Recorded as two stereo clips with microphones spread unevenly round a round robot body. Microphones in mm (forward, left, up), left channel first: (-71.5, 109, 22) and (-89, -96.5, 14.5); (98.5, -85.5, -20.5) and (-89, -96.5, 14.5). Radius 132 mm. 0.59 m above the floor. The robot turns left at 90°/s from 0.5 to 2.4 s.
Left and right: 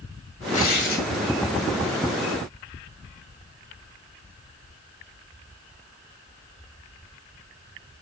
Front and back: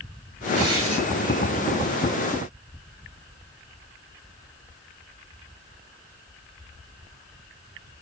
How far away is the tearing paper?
About 2 m.